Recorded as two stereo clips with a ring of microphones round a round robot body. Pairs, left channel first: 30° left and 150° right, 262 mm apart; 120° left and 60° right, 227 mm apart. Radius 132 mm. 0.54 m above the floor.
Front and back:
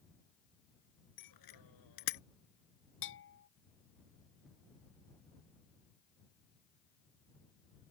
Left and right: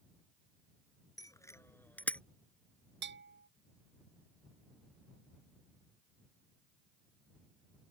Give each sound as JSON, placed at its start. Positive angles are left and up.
{"t": 1.2, "sound": "a bicycle bell", "azimuth_deg": 45}
{"t": 3.0, "sound": "a bell", "azimuth_deg": -20}